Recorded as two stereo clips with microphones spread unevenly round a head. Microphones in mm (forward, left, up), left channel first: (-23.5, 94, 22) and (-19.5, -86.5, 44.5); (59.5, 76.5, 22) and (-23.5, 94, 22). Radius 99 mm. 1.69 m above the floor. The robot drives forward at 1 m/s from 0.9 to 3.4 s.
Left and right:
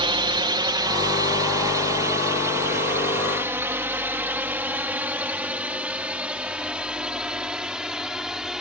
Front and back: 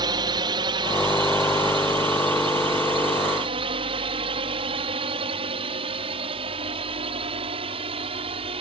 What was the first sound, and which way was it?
A drone, 150° right.